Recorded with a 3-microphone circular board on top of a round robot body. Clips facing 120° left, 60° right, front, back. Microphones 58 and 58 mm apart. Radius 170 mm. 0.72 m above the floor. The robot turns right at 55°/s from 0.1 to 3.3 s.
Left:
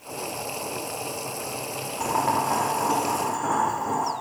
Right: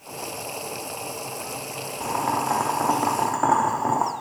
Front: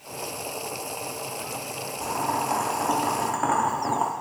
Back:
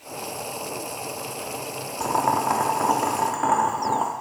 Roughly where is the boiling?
Behind.